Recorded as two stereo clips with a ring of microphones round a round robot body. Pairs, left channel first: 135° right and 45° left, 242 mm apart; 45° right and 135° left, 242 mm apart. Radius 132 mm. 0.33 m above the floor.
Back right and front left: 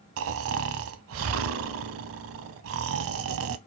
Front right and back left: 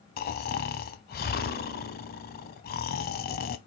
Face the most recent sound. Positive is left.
turn(degrees=10)